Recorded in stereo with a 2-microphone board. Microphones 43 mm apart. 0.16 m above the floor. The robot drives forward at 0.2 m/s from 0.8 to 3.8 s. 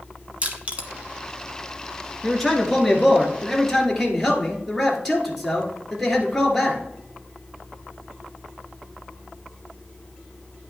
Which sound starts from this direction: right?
Crushing, at 0.4 s.